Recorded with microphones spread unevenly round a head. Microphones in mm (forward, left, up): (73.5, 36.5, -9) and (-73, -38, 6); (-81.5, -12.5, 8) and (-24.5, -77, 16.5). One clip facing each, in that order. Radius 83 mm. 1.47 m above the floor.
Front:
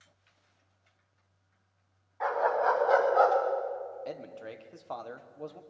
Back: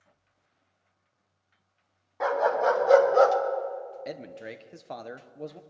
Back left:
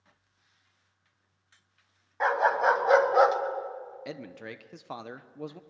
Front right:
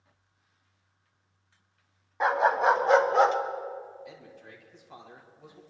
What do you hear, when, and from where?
2.2 s a dog barking: 135° right, 3.5 m; by 3.4 s 150° right, 2 m
4.0 s a man speaking: 135° left, 1.1 m